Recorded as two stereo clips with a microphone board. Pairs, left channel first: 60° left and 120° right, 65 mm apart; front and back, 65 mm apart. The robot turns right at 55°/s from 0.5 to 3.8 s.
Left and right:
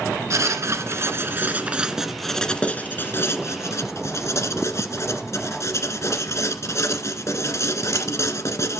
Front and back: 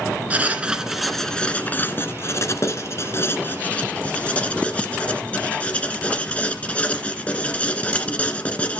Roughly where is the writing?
Behind right.